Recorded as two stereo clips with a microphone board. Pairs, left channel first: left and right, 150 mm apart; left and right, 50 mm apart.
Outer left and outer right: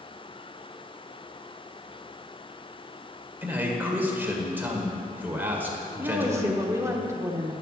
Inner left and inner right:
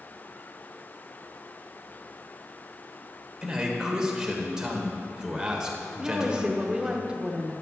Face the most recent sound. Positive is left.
turn(degrees=-20)  # may be behind; listen again after turning